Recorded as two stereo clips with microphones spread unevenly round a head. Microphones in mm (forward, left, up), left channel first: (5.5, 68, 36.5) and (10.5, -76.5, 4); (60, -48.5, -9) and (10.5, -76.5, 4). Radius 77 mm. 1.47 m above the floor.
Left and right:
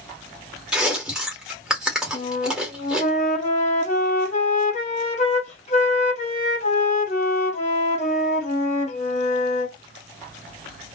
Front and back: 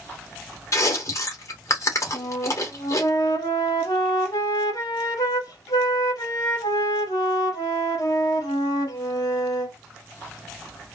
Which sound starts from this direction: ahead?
Chewing, at 0.7 s.